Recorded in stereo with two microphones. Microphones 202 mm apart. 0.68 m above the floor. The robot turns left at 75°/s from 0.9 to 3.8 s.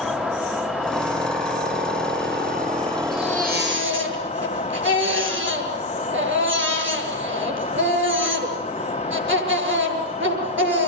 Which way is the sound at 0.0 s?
Straight ahead.